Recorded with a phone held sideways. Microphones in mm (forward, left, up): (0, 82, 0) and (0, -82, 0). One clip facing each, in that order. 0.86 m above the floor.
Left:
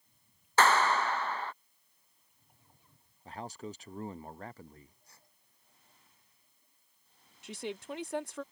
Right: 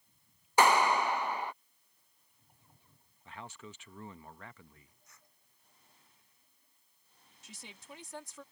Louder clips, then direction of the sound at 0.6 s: Right 1 dB; 15° right (ahead or behind).